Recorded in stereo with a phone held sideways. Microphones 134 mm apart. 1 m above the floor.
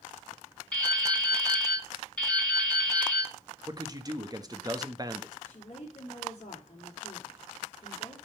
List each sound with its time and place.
0.7 s dripping: 10° left (ahead or behind), 3 m
3.7 s a man speaking: 25° right (ahead or behind), 0.9 m
5.5 s a woman speaking: 55° left (ahead or behind), 3 m